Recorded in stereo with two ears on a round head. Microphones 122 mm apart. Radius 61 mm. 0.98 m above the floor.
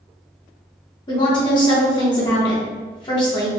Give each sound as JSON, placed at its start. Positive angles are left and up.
{"t": 1.1, "sound": "a woman speaking", "side_deg": 30, "distance_m": 1.1}